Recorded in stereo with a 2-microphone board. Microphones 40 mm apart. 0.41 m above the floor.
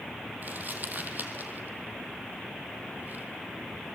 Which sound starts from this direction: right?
Crumpling, at 0.4 s.